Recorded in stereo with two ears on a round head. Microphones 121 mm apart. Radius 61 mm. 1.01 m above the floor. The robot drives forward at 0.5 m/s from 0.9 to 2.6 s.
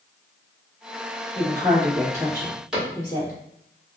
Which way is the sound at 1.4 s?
30° right (ahead or behind).